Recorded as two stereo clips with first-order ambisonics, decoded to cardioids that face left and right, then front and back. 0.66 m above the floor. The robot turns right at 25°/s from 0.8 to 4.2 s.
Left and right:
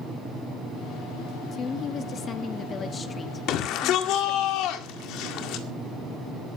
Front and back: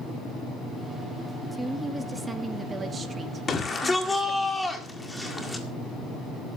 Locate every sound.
1.5 s a woman speaking: 90° left, 1.0 m; by 4.5 s 160° left, 1.0 m
3.5 s a shout: 65° left, 1.9 m; by 5.7 s 85° left, 1.9 m